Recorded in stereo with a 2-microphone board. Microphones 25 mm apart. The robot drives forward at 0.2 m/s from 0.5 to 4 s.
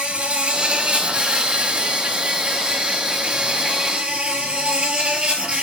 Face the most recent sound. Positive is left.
turn(degrees=-40)  # may be behind; listen again after turning